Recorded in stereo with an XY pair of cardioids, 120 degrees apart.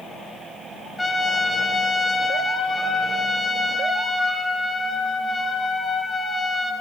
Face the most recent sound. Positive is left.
turn(degrees=15)